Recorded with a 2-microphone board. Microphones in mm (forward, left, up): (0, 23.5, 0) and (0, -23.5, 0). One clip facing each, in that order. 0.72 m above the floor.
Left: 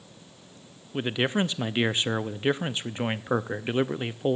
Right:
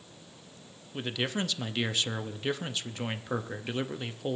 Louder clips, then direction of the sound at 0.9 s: Left 6 dB; 25° left (ahead or behind).